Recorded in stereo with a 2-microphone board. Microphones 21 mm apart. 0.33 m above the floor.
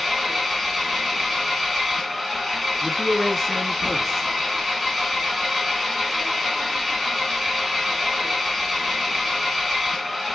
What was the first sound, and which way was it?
An engine running, 10° right (ahead or behind).